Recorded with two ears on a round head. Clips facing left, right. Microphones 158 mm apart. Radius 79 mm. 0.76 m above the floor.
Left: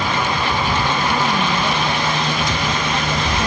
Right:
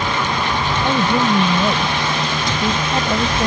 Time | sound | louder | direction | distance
0.8 | a woman speaking | right 3 dB | 20° right (ahead or behind) | ?